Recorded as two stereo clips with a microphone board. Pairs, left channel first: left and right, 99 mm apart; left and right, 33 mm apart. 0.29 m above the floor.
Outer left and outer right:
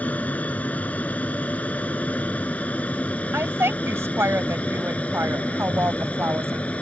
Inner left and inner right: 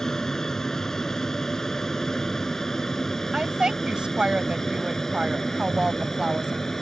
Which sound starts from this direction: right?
A woman speaking, at 3.3 s.